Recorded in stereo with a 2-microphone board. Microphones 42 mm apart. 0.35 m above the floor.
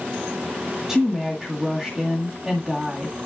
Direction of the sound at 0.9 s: 10° right (ahead or behind).